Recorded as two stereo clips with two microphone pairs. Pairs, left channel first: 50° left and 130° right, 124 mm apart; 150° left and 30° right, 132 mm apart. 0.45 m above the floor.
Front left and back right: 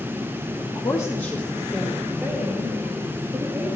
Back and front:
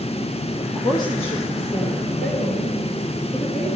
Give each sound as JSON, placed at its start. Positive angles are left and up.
{"t": 0.6, "sound": "a woman speaking", "azimuth_deg": 65, "distance_m": 1.1}